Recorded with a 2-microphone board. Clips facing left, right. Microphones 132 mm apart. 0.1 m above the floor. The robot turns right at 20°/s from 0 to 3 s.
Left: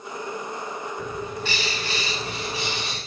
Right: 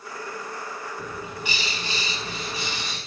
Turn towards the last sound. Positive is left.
turn(degrees=-135)